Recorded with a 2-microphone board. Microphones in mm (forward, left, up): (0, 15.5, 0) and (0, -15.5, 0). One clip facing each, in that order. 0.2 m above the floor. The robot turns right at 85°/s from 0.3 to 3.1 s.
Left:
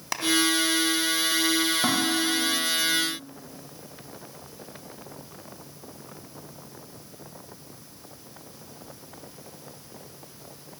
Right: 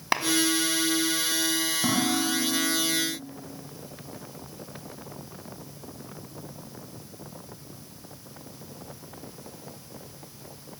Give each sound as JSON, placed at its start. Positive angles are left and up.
{"t": 0.1, "sound": "a clap", "side_deg": -30, "distance_m": 1.5}
{"t": 1.8, "sound": "dishes clattering", "azimuth_deg": 145, "distance_m": 8.0}